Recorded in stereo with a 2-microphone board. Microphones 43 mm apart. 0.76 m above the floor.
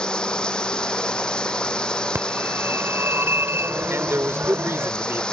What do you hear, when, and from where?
0.0 s running water: 20° left (ahead or behind)
2.1 s a phone ringing: 70° right (ahead or behind)
3.9 s a man speaking: 75° right (ahead or behind)